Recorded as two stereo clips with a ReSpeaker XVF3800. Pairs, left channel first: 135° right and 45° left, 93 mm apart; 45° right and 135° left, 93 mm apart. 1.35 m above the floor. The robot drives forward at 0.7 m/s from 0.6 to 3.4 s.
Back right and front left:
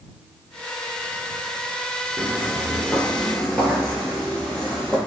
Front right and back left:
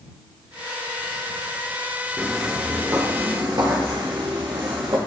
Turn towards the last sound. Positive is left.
turn(degrees=145)